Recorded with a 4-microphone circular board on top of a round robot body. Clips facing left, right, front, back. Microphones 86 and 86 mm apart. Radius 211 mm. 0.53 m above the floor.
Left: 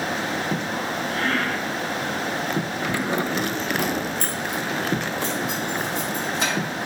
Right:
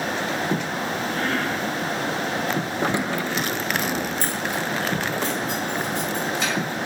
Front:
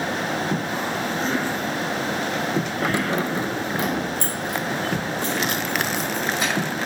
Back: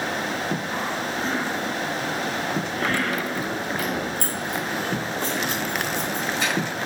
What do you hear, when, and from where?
2.8 s keys jangling: 80° right, 0.5 m; by 6.5 s 70° left, 4.5 m